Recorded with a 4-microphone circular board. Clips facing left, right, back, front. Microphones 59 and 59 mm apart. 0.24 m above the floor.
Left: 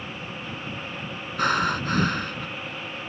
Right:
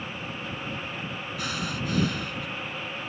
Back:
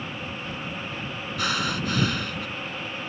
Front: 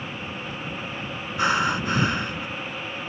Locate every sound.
1.4 s breathing: 60° left